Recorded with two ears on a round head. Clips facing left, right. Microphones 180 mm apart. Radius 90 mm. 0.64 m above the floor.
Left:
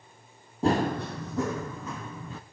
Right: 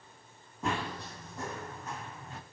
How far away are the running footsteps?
About 0.8 m.